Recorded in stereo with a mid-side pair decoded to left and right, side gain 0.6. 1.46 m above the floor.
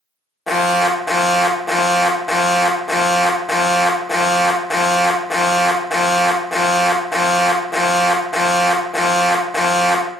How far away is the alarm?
About 0.7 m.